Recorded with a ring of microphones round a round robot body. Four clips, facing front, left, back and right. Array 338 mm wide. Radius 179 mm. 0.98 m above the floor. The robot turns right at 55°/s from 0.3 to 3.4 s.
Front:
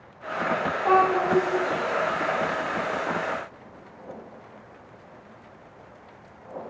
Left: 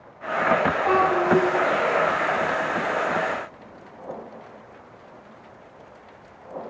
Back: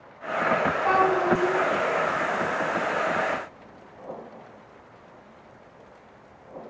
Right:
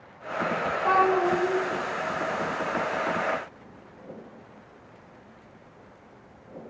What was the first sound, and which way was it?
A child speaking, 125° right.